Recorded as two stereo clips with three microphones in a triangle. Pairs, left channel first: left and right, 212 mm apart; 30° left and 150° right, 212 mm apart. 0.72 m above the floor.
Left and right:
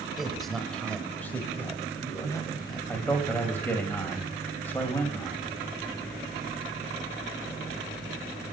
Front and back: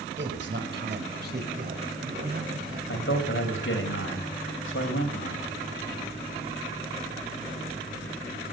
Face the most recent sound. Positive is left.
turn(degrees=10)